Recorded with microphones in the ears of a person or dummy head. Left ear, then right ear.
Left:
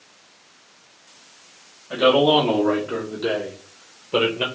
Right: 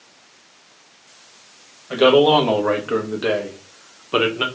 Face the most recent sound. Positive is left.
turn(degrees=-30)  # may be behind; listen again after turning